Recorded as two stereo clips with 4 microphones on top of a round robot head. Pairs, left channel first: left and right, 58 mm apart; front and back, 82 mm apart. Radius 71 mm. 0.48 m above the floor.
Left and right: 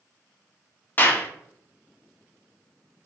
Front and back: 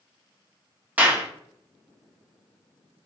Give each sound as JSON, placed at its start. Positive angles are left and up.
{"t": 1.0, "sound": "a clap", "azimuth_deg": 120, "distance_m": 0.9}